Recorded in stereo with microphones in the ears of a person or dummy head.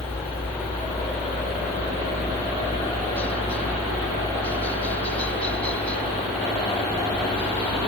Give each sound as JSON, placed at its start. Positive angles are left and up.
{"t": 0.0, "sound": "a helicopter", "side_deg": 15}